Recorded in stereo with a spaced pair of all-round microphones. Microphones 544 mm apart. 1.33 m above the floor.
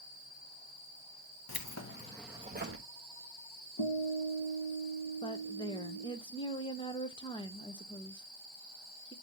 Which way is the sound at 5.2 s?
10° left (ahead or behind).